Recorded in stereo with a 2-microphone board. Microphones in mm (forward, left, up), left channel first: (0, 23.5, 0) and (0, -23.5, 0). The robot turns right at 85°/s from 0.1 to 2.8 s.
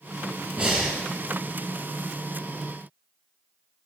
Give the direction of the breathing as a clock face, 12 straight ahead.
1 o'clock.